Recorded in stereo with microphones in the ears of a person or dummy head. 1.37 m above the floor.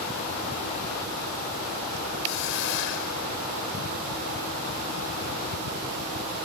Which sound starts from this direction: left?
A hiss, at 2.2 s.